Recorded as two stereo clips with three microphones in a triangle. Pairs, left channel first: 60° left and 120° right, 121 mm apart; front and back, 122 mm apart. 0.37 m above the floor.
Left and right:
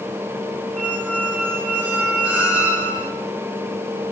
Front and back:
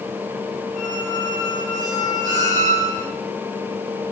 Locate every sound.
0.8 s a squeak: 165° left, 3 m